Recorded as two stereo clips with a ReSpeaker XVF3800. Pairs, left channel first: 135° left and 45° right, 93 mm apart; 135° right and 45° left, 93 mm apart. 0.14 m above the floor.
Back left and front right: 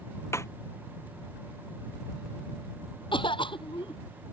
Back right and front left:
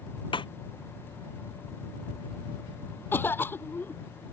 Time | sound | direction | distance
0.3 | a snare drum | 165° right | ?
3.1 | a cough | 160° left | ?